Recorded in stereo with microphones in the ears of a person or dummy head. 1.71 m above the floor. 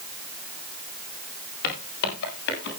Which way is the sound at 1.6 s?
60° left (ahead or behind).